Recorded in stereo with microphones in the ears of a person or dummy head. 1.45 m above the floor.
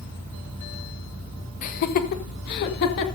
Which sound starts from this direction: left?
Laughter, at 1.6 s.